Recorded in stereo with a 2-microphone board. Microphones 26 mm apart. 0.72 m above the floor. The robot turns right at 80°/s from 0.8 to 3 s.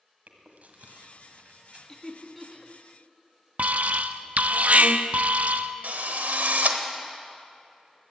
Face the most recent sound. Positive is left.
turn(degrees=-85)